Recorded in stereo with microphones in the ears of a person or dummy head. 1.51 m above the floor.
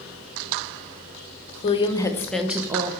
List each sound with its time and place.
1.6 s a woman speaking: 30° left (ahead or behind), 1.1 m; by 2.9 s 25° right (ahead or behind), 1.0 m